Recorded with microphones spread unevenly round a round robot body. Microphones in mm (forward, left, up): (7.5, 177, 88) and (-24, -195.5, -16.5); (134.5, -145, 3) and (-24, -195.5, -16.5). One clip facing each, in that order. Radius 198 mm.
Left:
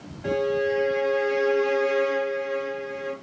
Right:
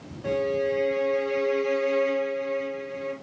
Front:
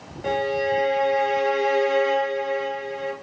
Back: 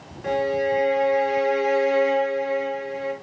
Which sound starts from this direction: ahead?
A violin, at 0.2 s.